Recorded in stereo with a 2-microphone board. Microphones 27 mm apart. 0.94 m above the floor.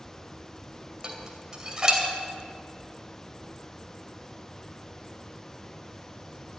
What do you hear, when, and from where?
1.0 s dishes clattering: 25° right (ahead or behind), 2.5 m